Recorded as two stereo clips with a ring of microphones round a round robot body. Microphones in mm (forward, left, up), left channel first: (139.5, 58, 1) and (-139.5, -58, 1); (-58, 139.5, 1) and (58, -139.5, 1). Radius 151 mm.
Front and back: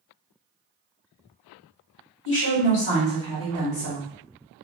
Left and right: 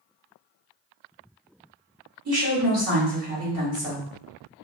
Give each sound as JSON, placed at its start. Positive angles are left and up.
{"t": 2.2, "sound": "a woman speaking", "azimuth_deg": -30, "distance_m": 1.3}